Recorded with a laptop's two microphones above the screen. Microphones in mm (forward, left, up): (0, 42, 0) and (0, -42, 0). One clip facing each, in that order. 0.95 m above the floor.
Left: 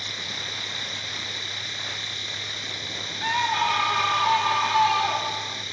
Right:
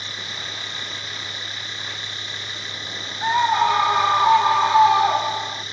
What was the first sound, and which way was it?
A machine running, 45° right (ahead or behind).